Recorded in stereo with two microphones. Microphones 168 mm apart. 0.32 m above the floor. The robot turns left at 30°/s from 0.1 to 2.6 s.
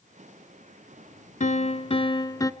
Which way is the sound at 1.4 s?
55° left.